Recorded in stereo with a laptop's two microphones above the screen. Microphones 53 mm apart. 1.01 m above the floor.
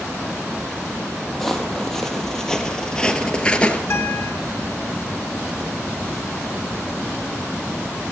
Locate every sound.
1.3 s footsteps: 5° left (ahead or behind), 2.5 m; by 3.8 s 25° left (ahead or behind), 1.2 m
3.9 s a guitar: 60° left (ahead or behind), 1.8 m